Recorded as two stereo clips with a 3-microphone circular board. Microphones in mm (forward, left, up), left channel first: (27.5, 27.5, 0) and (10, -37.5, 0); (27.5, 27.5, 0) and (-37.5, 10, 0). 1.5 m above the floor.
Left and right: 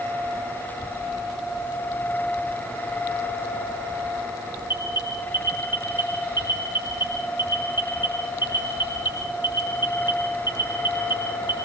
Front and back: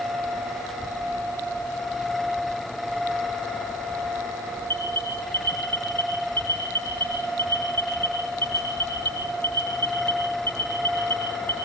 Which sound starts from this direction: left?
An alarm, at 4.7 s.